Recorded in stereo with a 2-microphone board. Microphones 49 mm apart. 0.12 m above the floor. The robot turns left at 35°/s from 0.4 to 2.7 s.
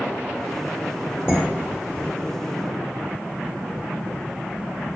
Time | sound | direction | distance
1.3 | dishes clattering | 55° right (ahead or behind) | 1.8 m